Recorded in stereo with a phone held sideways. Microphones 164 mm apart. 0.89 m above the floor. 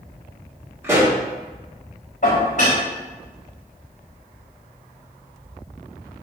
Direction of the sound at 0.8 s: 15° right (ahead or behind).